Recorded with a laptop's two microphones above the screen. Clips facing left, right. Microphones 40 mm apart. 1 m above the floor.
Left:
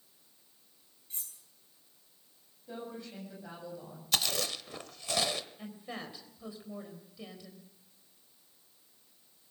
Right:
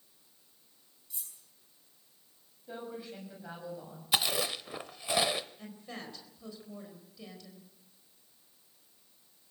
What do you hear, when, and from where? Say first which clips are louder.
1.1 s cutlery clinking: left 1 dB; 45° left (ahead or behind), 6 m
2.7 s a woman speaking: right 1 dB; 15° right (ahead or behind), 7.5 m
4.1 s chewing: right 2 dB; 20° right (ahead or behind), 0.8 m
5.6 s a woman speaking: left 2 dB; 15° left (ahead or behind), 4 m